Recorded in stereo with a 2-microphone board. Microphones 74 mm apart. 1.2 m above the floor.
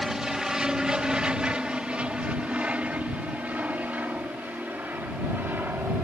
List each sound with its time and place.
0.0 s an aircraft: 5° right (ahead or behind); by 6.0 s 30° right (ahead or behind)